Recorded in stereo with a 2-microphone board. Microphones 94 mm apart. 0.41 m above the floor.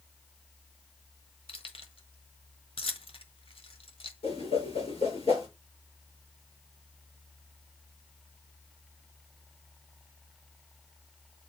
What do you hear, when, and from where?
1.5 s keys jangling: 65° left (ahead or behind), 1.2 m
4.2 s a whoosh: 85° left, 6 m